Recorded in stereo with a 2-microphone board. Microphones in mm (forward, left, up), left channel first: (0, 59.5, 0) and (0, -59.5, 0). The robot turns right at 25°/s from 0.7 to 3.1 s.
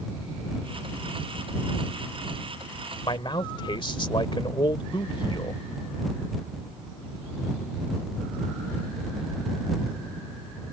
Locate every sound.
3.0 s a man speaking: 45° left (ahead or behind)